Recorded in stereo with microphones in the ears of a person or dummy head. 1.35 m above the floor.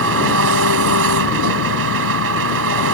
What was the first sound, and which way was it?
An engine running, 90° right.